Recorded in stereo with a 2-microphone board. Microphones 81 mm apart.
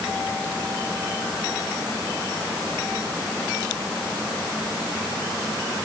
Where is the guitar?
No guitar in this recording.